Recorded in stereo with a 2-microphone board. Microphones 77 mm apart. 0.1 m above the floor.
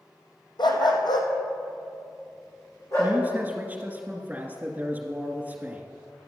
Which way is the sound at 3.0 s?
20° right (ahead or behind).